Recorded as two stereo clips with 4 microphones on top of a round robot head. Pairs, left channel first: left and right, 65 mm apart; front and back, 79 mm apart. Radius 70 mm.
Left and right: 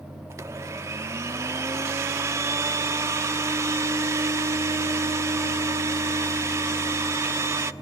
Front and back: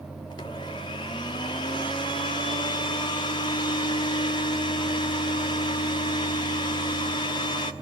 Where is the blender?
45° right, 0.9 m.